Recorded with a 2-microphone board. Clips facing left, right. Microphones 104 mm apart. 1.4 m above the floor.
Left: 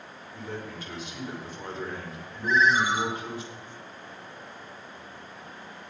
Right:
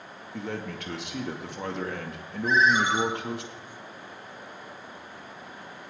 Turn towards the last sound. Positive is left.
turn(degrees=-30)  # may be behind; listen again after turning